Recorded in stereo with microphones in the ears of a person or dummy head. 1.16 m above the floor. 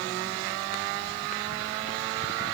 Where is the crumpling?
No crumpling in this recording.